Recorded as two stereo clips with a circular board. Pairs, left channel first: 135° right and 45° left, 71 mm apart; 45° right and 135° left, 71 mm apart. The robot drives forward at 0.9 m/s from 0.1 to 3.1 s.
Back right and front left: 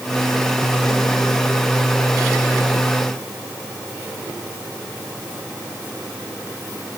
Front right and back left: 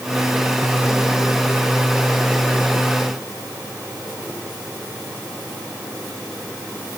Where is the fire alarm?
I don't hear a fire alarm.